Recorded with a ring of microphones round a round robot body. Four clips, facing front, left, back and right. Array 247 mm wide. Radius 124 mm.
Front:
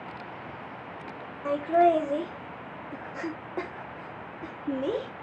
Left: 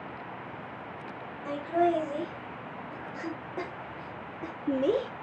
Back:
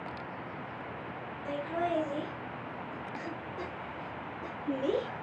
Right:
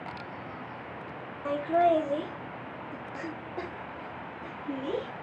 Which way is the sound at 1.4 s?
35° right.